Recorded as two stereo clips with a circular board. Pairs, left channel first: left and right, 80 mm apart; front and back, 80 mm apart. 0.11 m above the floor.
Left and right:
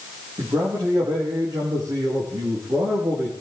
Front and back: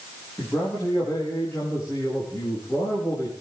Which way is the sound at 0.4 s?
60° right.